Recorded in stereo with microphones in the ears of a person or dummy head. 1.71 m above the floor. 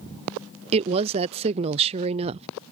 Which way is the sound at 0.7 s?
30° right (ahead or behind).